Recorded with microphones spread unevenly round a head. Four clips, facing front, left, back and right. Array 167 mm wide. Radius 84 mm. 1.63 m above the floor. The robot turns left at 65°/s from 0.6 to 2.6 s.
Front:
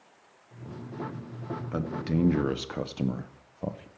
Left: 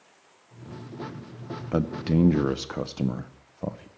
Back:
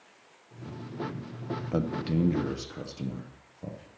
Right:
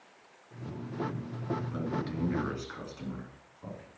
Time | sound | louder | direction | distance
1.7 | a man speaking | left 9 dB, back 1 dB | 120° left | 0.7 m